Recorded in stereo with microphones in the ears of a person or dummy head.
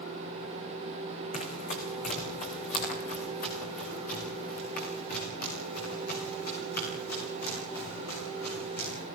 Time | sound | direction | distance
1.3 | running footsteps | 45° left (ahead or behind) | 6 m